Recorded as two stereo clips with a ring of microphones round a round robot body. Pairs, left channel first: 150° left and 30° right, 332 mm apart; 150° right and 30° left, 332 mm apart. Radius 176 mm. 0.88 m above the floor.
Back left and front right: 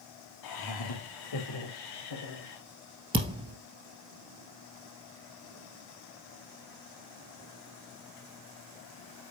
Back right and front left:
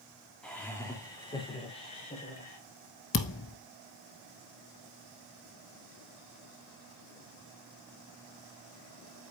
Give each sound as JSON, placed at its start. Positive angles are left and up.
{"t": 0.4, "sound": "laughter", "azimuth_deg": 125, "distance_m": 1.6}
{"t": 3.1, "sound": "a thud", "azimuth_deg": -100, "distance_m": 1.3}